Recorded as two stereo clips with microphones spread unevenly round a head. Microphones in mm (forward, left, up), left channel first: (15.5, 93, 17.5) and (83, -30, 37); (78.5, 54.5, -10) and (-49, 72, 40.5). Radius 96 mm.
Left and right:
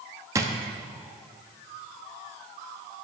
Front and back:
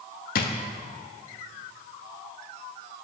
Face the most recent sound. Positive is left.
turn(degrees=-5)